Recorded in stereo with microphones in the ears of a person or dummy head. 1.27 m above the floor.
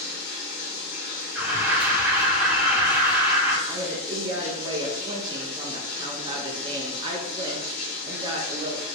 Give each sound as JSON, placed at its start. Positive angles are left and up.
{"t": 0.0, "sound": "running water", "side_deg": 55, "distance_m": 1.1}
{"t": 1.4, "sound": "an alarm", "side_deg": -15, "distance_m": 0.6}
{"t": 3.7, "sound": "a woman speaking", "side_deg": -20, "distance_m": 0.6}